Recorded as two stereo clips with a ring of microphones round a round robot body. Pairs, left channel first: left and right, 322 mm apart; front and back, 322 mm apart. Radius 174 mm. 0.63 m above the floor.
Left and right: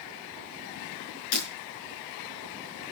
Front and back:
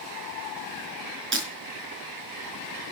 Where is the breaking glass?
125° left, 5 m.